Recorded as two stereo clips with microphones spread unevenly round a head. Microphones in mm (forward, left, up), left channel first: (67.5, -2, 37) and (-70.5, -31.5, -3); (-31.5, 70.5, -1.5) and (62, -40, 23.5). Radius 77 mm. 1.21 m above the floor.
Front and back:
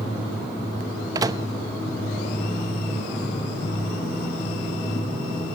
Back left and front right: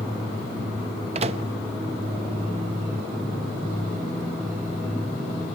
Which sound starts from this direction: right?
A microwave, at 1.1 s.